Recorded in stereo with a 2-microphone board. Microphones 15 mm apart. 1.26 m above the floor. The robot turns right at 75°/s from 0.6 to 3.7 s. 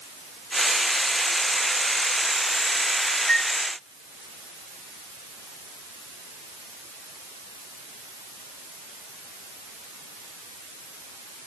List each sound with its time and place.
3.3 s a flute: 70° left (ahead or behind), 1.7 m; by 3.5 s 60° left (ahead or behind), 1.7 m